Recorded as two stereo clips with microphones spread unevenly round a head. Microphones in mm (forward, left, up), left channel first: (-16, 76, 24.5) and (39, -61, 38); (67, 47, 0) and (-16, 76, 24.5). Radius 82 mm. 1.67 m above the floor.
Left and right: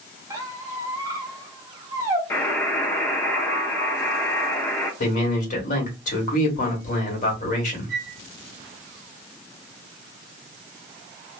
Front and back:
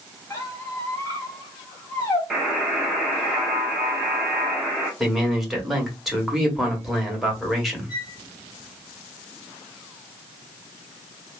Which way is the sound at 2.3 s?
Straight behind.